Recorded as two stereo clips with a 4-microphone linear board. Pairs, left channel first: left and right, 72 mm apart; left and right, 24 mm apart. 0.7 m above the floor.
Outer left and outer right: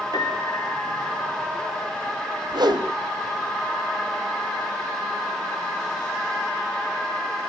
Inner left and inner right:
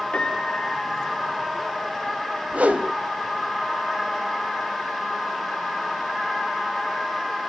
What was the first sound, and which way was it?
A piano, 85° left.